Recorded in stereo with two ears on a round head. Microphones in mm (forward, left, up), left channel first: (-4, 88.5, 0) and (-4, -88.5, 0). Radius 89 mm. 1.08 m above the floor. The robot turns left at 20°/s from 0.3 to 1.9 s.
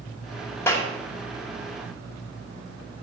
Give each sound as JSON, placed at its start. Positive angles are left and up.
{"t": 0.7, "sound": "a clap", "side_deg": 15, "distance_m": 2.5}